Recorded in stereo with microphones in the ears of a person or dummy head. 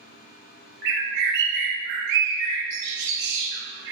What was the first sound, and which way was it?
A bird, 55° right (ahead or behind).